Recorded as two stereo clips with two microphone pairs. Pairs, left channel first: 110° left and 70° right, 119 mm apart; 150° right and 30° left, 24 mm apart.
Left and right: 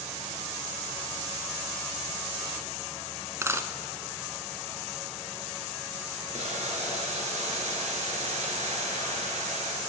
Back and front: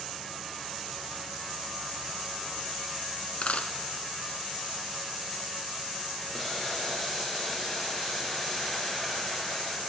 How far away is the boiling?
About 2.5 m.